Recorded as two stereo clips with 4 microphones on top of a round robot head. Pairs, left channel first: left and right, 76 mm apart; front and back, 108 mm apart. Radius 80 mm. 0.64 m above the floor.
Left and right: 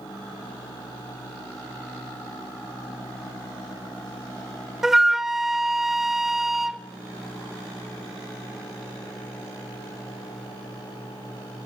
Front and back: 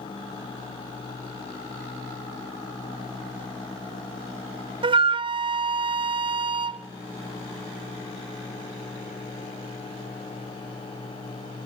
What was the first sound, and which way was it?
A flute, 175° right.